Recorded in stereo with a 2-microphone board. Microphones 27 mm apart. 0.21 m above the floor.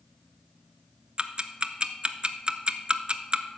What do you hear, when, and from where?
1.2 s ticking: 40° right (ahead or behind), 0.5 m